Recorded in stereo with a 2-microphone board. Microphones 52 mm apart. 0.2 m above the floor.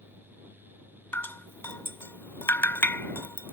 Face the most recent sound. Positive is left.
turn(degrees=45)  # may be behind; listen again after turning